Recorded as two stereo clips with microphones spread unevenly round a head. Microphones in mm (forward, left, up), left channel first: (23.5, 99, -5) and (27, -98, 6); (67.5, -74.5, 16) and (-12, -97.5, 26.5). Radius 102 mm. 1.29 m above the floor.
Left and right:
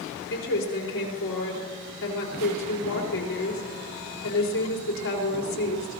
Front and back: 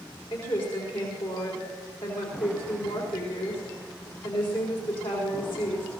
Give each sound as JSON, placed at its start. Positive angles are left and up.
{"t": 0.3, "sound": "a woman speaking", "azimuth_deg": 70, "distance_m": 4.5}